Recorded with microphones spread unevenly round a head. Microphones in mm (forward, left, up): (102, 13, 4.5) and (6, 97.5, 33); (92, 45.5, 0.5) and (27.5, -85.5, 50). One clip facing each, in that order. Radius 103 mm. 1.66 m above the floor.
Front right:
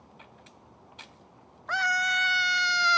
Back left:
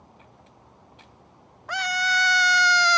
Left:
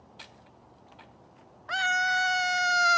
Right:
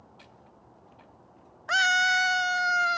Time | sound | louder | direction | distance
1.7 | a scream | back left 2 dB, right 2 dB | 145° right | ?